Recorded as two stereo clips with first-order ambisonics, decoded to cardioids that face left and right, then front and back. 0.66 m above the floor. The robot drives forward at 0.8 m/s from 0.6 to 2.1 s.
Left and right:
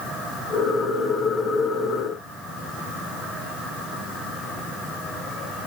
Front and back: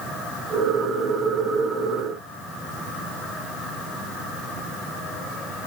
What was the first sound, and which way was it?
Only background noise.